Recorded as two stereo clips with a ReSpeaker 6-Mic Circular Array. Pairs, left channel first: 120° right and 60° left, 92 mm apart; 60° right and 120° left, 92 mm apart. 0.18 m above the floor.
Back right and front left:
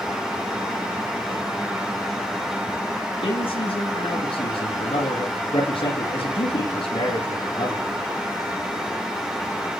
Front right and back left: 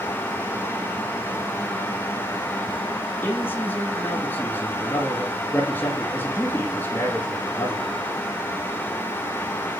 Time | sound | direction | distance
3.2 | a man speaking | 130° right | 8 m